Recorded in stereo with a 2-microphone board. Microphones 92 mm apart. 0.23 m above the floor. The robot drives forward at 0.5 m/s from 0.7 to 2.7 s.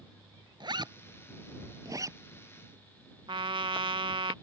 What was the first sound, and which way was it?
A zipper, 55° right (ahead or behind).